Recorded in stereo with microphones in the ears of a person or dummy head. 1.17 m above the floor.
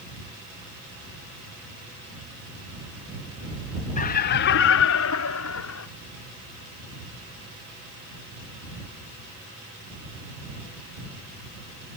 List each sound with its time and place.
4.0 s laughter: 40° left (ahead or behind); by 5.9 s 85° left